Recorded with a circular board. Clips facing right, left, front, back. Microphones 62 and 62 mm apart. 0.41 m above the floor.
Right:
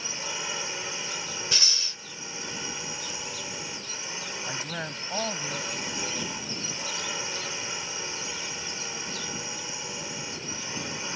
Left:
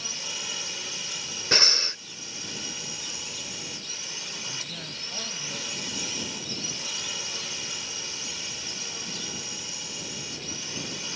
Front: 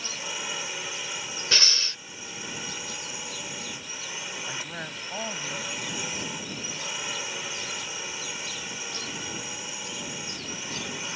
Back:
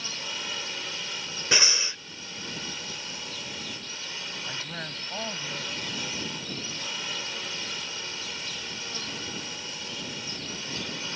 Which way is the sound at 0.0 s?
65° right.